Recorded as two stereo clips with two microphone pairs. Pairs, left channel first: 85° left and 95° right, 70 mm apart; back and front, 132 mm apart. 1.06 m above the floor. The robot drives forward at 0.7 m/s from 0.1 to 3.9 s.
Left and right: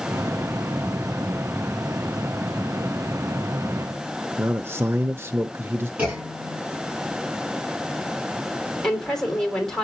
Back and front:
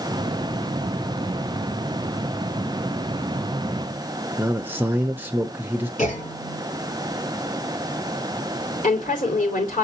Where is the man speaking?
70° right, 0.7 m.